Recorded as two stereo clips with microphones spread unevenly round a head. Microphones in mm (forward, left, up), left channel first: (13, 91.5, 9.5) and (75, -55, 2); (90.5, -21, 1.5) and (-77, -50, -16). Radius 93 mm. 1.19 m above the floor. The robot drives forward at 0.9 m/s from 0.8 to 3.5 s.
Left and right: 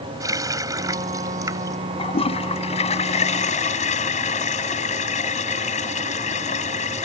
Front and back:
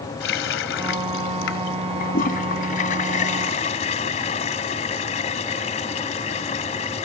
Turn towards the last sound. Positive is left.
turn(degrees=70)